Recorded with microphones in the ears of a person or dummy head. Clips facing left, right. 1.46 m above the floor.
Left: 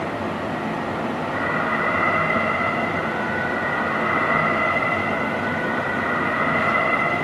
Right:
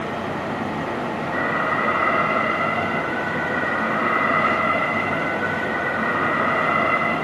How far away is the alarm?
About 6.5 m.